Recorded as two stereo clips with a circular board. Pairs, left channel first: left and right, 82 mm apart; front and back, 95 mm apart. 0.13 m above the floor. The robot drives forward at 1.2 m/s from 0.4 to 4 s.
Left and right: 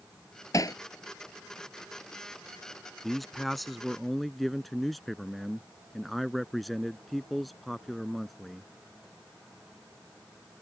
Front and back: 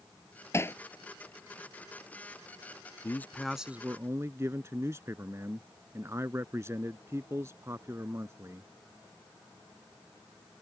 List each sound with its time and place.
0.5 s hammering: 55° left; by 0.8 s 60° left
3.0 s a man speaking: straight ahead; by 8.7 s straight behind